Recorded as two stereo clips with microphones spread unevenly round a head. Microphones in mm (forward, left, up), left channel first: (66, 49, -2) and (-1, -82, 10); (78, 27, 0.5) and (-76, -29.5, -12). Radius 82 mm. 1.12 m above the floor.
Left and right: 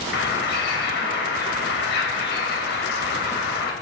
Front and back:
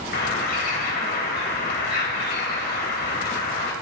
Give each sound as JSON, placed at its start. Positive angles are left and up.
{"t": 0.1, "sound": "a bird", "azimuth_deg": 55, "distance_m": 3.0}